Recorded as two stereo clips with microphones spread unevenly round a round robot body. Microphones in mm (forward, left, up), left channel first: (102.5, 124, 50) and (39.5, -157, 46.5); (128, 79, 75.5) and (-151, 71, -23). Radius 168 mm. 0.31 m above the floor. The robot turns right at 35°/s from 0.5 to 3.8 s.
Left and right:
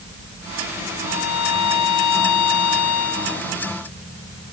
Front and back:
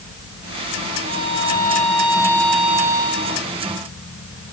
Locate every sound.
1.1 s a violin: 50° left; by 3.5 s 135° left